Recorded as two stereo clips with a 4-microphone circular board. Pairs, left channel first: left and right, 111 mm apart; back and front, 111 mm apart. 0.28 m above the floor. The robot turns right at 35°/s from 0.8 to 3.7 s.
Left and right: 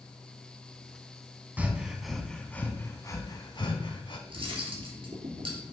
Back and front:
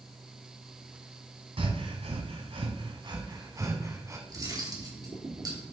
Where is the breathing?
20° right, 1.4 m; by 4.2 s 55° left, 1.4 m.